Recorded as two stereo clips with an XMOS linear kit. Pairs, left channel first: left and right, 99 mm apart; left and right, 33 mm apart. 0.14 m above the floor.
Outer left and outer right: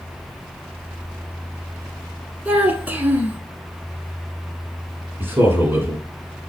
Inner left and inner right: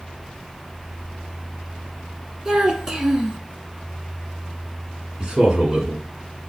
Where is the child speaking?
20° right (ahead or behind), 0.9 m.